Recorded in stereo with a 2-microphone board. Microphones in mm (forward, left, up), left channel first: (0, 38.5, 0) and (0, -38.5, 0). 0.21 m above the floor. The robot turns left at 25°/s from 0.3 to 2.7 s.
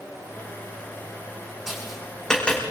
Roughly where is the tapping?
Centre.